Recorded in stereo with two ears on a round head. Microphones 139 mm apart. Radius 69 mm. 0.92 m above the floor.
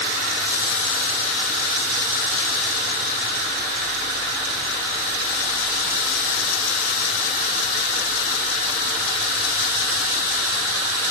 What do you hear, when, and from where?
Only background noise.